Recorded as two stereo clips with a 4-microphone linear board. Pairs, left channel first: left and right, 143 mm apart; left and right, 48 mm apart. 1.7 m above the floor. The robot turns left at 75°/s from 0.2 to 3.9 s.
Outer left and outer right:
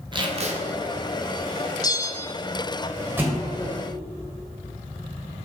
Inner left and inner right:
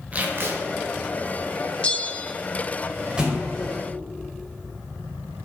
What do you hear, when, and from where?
0.1 s tape being pulled: 35° right (ahead or behind), 1.1 m; by 0.6 s 60° right (ahead or behind), 1.1 m
1.8 s a bell: 25° left (ahead or behind), 0.6 m; by 2.3 s 15° left (ahead or behind), 0.6 m
3.2 s a thud: 15° right (ahead or behind), 2 m; by 3.5 s 5° left (ahead or behind), 2 m